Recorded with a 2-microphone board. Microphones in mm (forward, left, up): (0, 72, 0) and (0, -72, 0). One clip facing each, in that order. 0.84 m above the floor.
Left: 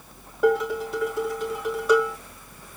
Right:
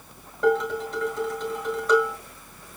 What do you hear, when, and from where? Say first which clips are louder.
0.4 s dishes clattering: left 1 dB; 10° left (ahead or behind), 8 m